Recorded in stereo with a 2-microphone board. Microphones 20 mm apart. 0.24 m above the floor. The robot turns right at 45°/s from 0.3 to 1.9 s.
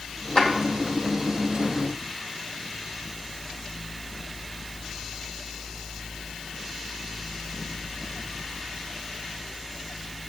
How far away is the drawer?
About 3 m.